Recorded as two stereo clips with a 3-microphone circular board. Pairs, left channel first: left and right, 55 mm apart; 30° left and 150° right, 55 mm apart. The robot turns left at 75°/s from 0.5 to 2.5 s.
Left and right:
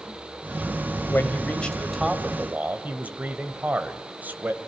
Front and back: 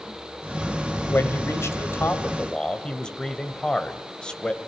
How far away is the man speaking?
About 1.7 m.